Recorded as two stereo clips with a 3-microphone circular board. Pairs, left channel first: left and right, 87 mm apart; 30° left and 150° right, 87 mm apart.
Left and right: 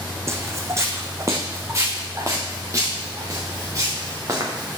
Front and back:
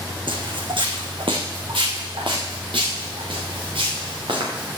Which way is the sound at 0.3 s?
150° right.